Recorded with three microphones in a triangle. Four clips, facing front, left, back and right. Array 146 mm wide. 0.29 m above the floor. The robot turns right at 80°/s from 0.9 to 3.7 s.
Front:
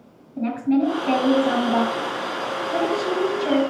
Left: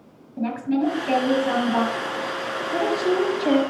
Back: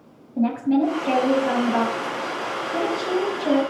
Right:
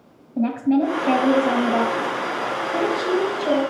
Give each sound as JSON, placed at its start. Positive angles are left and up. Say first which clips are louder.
{"t": 0.4, "sound": "a woman speaking", "louder": "right 4 dB, back 1 dB", "azimuth_deg": -105, "distance_m": 5.5}